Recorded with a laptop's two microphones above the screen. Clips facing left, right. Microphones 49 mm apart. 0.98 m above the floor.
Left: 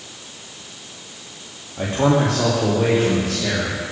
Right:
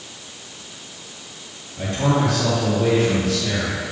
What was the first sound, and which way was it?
A man speaking, 35° left (ahead or behind).